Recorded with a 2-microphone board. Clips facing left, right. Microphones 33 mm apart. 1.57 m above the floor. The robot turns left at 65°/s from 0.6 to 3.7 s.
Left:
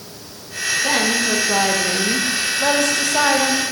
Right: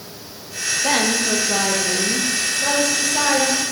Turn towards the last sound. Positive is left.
turn(degrees=15)